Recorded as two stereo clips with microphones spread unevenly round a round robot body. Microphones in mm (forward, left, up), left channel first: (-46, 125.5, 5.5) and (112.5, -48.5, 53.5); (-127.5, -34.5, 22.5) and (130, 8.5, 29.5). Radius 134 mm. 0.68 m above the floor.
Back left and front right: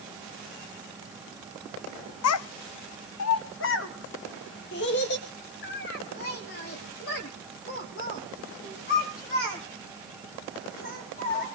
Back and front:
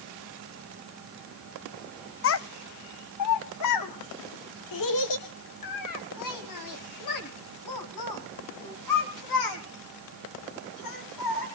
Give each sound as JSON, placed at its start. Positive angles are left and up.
{"t": 2.2, "sound": "a child speaking", "azimuth_deg": 145, "distance_m": 0.7}